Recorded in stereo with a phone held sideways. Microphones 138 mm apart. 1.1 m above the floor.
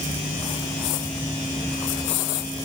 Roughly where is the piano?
No piano in this recording.